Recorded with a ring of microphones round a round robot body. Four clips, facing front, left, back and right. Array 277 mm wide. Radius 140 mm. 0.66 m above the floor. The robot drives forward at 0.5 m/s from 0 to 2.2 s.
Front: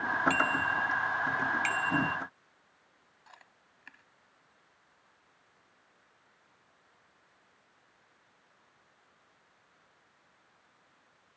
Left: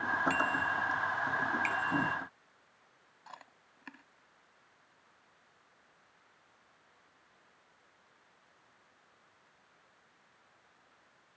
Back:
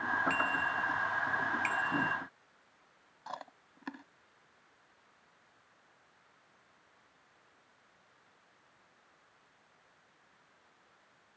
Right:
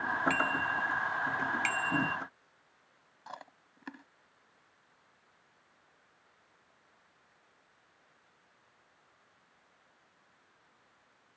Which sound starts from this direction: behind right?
Chewing, at 3.3 s.